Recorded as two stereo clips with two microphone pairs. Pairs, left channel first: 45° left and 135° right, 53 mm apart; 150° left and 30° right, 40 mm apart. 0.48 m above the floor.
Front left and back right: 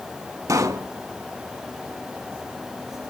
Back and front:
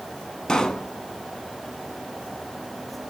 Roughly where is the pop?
Behind right.